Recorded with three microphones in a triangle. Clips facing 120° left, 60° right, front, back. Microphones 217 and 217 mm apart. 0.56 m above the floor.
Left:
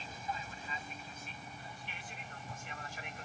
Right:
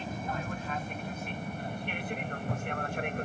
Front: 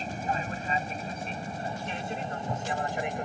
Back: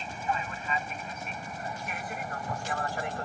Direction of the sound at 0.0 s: 45° right.